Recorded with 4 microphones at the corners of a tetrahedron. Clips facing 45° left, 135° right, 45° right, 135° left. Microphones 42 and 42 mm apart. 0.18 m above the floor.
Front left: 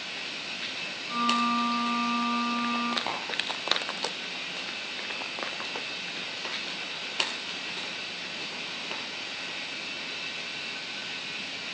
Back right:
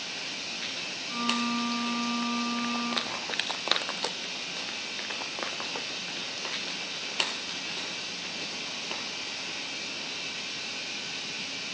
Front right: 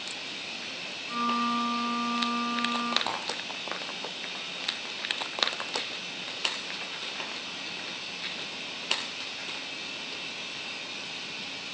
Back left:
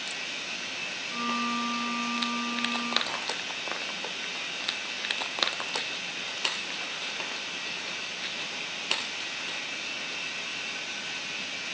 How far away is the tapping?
About 1.2 m.